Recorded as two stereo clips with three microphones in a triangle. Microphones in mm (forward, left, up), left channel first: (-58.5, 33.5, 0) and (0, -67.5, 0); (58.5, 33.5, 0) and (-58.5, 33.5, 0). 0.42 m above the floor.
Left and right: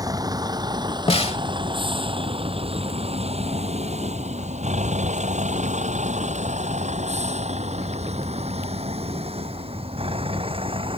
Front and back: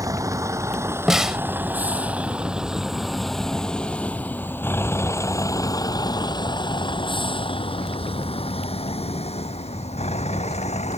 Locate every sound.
0.0 s a vehicle: 120° right; by 11.0 s 20° right
1.1 s a snare drum: 95° left